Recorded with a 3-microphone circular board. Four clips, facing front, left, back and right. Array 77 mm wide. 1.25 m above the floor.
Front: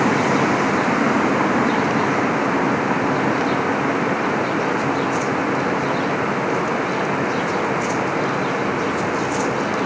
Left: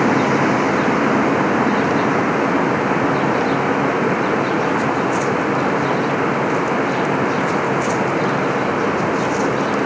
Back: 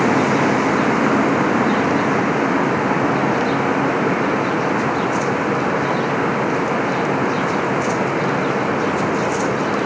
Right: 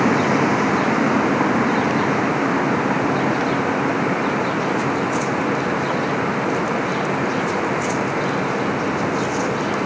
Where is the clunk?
I don't hear a clunk.